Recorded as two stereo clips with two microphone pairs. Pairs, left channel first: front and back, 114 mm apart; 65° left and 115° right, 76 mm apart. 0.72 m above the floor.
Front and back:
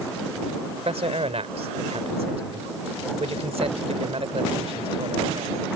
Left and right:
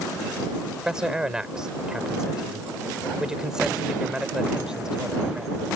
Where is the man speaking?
160° left.